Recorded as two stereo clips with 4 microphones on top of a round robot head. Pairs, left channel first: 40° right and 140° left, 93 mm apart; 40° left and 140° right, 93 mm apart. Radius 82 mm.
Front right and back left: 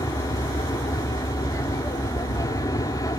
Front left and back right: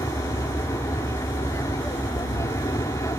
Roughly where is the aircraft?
Ahead.